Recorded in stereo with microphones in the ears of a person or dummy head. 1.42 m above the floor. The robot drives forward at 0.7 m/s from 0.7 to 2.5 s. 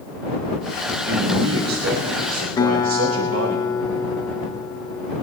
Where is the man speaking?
85° right, 3.5 m; by 3.6 s 75° right (ahead or behind), 3.5 m.